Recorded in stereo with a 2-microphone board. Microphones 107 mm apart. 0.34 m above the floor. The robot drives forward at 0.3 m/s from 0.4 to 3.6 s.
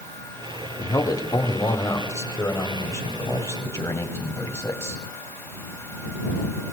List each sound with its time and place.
0.8 s a man speaking: 35° left (ahead or behind), 1.4 m; by 5.0 s 25° left (ahead or behind), 1.9 m